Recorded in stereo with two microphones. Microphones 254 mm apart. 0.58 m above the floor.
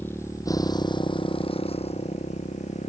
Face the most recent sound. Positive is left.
turn(degrees=25)  # may be behind; listen again after turning